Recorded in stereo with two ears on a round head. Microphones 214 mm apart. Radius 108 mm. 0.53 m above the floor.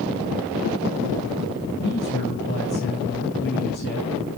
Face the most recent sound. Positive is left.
turn(degrees=45)  # may be behind; listen again after turning